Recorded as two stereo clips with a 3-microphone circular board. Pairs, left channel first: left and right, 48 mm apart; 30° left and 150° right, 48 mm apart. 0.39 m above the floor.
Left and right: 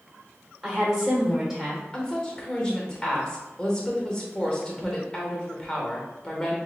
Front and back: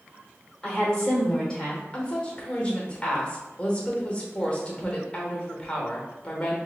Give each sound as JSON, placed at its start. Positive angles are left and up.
{"t": 0.6, "sound": "a woman speaking", "azimuth_deg": -20, "distance_m": 1.1}
{"t": 1.9, "sound": "a woman speaking", "azimuth_deg": 45, "distance_m": 0.9}